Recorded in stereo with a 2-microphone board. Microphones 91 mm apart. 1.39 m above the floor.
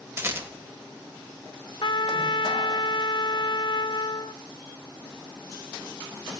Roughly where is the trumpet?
Left.